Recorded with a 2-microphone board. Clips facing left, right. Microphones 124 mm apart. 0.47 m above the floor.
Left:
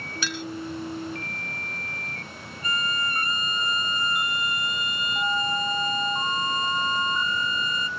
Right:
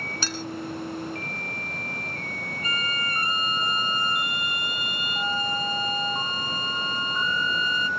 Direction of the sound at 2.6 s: 35° right (ahead or behind).